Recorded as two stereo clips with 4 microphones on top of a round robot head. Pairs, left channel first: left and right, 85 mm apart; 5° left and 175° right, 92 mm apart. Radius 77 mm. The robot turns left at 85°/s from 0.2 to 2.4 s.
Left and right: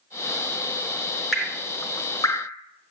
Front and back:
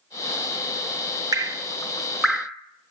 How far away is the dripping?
About 0.9 m.